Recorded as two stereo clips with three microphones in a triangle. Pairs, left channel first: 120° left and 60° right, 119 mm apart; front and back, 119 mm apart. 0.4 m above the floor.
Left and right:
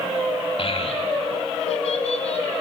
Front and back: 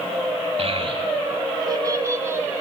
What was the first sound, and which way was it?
A child speaking, 155° left.